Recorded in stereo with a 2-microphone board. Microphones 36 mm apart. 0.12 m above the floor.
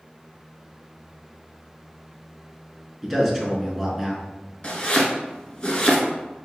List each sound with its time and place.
3.0 s a man speaking: 5° right (ahead or behind), 1.1 m
4.6 s chopping: 30° left (ahead or behind), 0.8 m